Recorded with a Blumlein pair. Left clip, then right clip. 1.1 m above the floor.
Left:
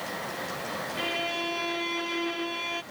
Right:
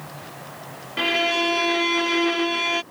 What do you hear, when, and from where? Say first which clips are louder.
1.0 s a violin: right 11 dB; 65° right